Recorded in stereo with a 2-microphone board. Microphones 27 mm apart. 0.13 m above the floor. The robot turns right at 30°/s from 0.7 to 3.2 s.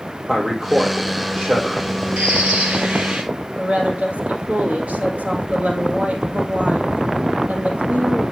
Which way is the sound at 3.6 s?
65° right (ahead or behind).